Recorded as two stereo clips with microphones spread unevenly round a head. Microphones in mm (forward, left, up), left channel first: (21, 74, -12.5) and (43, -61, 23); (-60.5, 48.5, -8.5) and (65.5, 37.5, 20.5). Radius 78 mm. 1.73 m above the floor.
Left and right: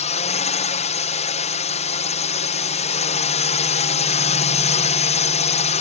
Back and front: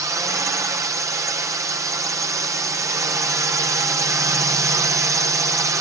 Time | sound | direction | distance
0.0 | a drone | 65° left | ?